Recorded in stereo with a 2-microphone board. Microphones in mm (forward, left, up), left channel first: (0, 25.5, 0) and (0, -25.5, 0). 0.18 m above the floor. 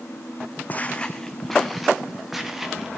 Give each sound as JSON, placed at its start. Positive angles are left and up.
{"t": 0.7, "sound": "footsteps", "side_deg": 35, "distance_m": 0.6}